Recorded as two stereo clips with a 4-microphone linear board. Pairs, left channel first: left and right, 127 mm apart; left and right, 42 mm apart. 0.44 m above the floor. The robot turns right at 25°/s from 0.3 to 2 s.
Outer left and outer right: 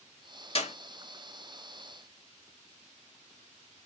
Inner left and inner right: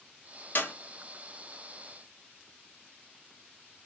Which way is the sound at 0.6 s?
50° left (ahead or behind).